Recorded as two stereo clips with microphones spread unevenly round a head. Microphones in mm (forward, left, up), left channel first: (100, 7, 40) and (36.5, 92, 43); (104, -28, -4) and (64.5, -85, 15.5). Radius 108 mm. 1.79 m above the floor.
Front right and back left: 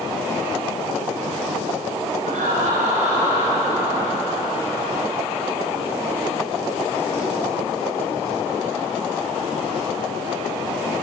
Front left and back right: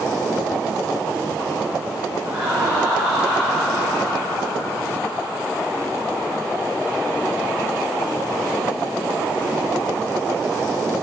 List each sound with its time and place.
2.2 s laughter: 165° left, 6 m; by 5.4 s 140° left, 7.5 m